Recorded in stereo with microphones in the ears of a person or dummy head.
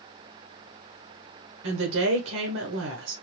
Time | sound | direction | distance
1.6 | a woman speaking | 75° right (ahead or behind) | 1.1 m